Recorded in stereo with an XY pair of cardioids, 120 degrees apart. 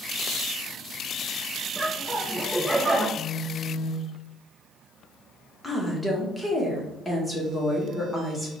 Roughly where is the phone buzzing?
Ahead left.